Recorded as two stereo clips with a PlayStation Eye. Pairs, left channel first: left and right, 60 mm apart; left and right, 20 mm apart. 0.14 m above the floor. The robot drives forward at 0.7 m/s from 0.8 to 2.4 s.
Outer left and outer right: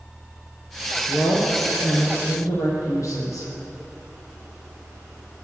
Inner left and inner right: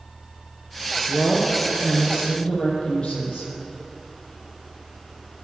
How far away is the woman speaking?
About 4 m.